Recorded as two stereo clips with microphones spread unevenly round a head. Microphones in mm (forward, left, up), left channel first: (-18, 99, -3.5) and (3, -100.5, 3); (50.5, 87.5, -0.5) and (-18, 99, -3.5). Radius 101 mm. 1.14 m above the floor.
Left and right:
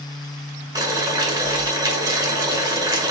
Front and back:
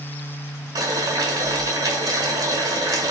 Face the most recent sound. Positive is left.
turn(degrees=-155)